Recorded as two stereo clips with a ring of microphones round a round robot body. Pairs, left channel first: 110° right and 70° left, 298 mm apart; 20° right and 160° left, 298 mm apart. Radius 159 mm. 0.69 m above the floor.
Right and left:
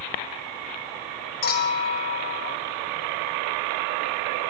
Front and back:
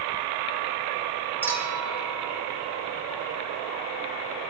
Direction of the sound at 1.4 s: 120° right.